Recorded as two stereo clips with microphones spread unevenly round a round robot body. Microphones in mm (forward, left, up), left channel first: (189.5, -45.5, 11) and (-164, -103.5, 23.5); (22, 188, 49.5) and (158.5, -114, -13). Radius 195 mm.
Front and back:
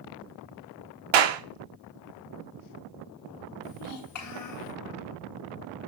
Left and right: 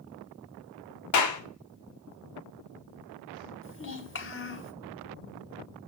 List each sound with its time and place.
1.1 s a clap: 165° left, 1.6 m
3.6 s a child speaking: 60° left, 3 m